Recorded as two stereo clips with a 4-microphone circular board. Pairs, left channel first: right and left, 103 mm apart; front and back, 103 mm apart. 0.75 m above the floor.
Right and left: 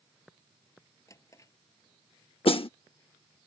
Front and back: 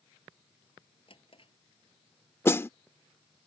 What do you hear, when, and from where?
1.1 s a drawer: 30° right
2.5 s a snare drum: 65° right